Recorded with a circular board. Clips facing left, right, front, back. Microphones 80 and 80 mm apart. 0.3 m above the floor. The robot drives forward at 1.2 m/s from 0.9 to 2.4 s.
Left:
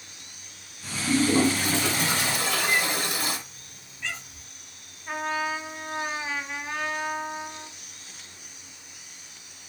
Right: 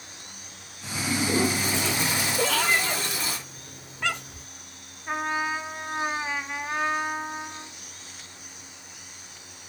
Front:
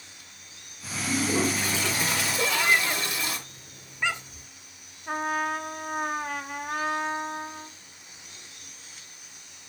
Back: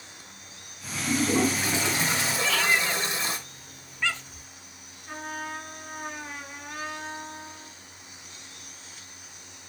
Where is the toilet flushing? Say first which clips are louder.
Left 3 dB, back 2 dB; 95° left, 3.5 m; by 3.4 s 120° left, 4 m.